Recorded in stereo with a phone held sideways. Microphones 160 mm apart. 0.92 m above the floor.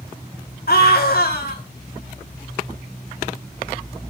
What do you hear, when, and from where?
0.7 s a scream: 70° left (ahead or behind), 1.6 m